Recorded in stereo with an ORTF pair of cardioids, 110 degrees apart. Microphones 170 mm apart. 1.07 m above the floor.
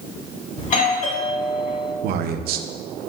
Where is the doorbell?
50° left, 1.7 m.